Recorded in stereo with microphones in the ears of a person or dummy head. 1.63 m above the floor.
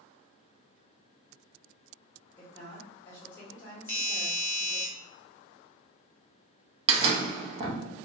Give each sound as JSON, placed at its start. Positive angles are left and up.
{"t": 2.4, "sound": "a woman speaking", "side_deg": 20, "distance_m": 1.6}
{"t": 3.9, "sound": "a doorbell", "side_deg": 15, "distance_m": 1.8}
{"t": 6.9, "sound": "a door slam", "side_deg": -35, "distance_m": 0.7}